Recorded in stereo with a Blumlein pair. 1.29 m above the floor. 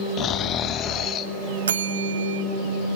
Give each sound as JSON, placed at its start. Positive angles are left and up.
{"t": 0.2, "sound": "snoring", "azimuth_deg": 30, "distance_m": 1.2}
{"t": 1.7, "sound": "a bell", "azimuth_deg": -65, "distance_m": 1.1}